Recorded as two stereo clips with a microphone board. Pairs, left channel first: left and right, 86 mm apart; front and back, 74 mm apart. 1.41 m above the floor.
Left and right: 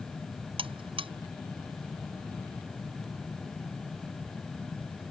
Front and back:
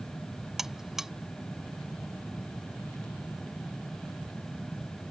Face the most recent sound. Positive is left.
turn(degrees=-95)